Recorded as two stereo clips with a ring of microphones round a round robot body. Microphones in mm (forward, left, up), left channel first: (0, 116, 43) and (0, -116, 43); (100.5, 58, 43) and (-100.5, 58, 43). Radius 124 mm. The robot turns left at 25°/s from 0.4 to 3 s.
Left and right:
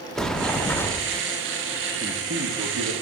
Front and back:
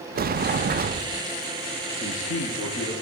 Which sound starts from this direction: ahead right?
A man speaking, at 2.0 s.